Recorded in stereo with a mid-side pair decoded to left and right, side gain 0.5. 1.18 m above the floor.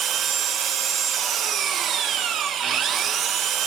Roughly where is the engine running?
Ahead right.